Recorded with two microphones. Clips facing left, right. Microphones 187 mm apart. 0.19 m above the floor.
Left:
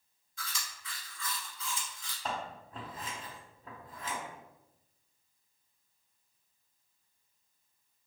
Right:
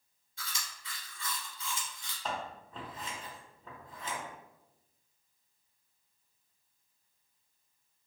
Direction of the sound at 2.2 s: 10° left (ahead or behind).